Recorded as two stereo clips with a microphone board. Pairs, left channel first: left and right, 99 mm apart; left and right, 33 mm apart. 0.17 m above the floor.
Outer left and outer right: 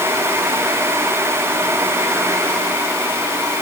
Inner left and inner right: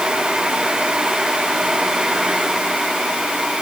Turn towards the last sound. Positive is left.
No sound to turn to.